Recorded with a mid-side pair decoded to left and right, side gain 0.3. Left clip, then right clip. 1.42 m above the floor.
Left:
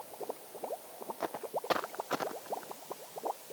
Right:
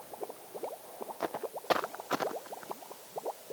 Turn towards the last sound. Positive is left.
turn(degrees=-30)